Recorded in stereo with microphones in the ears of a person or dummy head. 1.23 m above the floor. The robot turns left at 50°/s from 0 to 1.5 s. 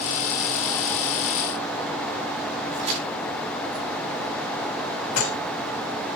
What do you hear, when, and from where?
2.8 s a crack: 30° right (ahead or behind), 8.5 m
5.2 s dishes clattering: 90° left, 6 m